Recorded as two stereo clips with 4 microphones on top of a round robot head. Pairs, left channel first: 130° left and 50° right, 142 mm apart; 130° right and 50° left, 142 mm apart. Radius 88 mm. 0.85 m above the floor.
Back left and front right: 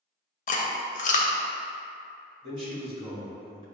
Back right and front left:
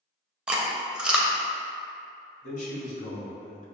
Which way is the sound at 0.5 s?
135° left.